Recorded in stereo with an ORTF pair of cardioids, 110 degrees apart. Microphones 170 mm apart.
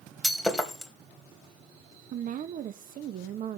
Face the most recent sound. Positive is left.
turn(degrees=-55)